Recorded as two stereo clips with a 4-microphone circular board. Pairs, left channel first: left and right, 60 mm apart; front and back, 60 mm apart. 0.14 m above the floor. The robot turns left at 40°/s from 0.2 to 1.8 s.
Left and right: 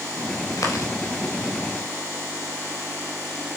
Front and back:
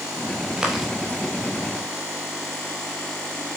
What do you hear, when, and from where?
0.6 s chewing: 105° left, 4 m; by 0.9 s 90° left, 4 m